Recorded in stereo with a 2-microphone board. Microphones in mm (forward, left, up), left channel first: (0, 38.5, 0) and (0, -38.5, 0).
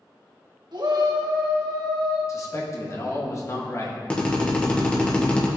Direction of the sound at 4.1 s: 15° left (ahead or behind).